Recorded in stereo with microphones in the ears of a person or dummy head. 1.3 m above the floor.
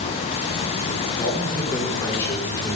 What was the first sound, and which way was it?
A man speaking, 20° left (ahead or behind).